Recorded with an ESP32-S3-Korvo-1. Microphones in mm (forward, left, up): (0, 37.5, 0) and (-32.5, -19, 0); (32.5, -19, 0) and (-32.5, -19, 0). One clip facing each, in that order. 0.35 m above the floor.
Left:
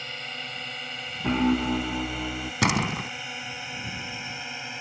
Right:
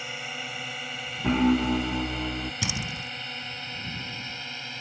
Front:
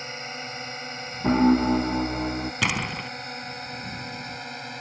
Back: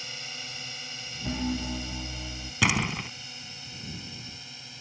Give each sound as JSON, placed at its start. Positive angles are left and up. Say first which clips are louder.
{"t": 0.0, "sound": "a drone", "louder": "right 1 dB, front 7 dB", "azimuth_deg": -40}
{"t": 1.2, "sound": "a piano", "louder": "right 1 dB, front 13 dB", "azimuth_deg": -30}
{"t": 2.6, "sound": "a door slam", "louder": "left 8 dB, back 3 dB", "azimuth_deg": 90}